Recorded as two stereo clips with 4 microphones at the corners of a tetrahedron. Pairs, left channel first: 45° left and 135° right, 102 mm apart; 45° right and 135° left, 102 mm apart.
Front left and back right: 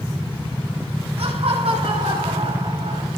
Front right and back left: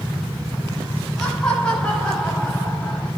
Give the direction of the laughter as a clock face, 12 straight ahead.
4 o'clock.